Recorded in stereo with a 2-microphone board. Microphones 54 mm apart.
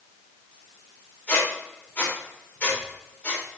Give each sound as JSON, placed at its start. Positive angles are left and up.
{"t": 1.3, "sound": "a squeak", "side_deg": 25, "distance_m": 3.5}